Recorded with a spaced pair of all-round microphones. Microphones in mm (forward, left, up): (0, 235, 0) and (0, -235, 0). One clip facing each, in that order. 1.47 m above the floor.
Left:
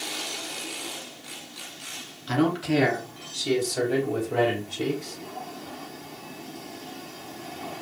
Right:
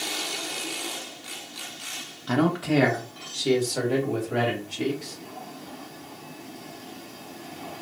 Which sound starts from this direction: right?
A man speaking, at 2.3 s.